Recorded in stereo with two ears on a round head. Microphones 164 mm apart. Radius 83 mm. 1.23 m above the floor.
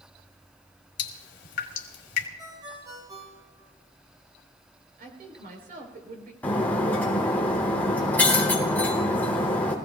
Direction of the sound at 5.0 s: 50° right (ahead or behind).